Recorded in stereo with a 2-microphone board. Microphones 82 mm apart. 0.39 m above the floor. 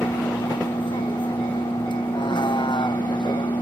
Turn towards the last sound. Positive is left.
turn(degrees=70)  # may be behind; listen again after turning